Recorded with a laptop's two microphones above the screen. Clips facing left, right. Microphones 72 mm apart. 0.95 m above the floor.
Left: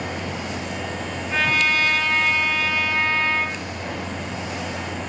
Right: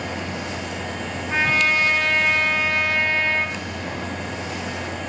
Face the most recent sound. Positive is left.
turn(degrees=-25)  # may be behind; listen again after turning